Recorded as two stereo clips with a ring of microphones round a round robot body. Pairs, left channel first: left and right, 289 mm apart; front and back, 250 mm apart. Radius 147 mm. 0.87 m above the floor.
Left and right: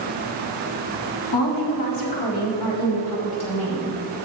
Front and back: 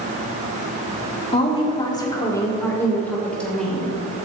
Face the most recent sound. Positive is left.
turn(degrees=90)